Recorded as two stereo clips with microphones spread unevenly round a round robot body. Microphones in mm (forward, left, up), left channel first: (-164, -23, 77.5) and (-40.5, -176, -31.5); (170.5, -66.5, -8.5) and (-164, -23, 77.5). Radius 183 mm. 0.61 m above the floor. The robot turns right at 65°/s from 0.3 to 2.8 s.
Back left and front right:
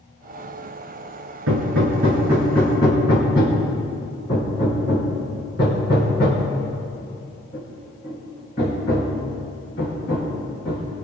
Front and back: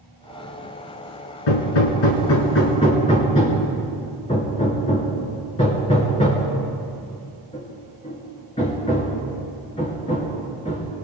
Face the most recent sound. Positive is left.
turn(degrees=70)